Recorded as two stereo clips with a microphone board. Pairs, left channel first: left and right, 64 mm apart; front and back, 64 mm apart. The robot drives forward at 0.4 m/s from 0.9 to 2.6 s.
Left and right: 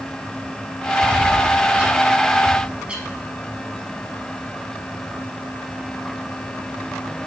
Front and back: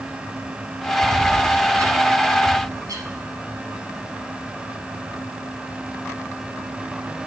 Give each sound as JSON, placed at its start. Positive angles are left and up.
{"t": 1.0, "sound": "a bird", "azimuth_deg": -155, "distance_m": 1.4}